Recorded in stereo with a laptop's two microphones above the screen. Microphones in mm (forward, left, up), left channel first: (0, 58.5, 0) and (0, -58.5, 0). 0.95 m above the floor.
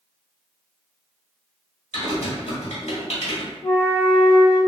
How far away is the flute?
About 1.4 m.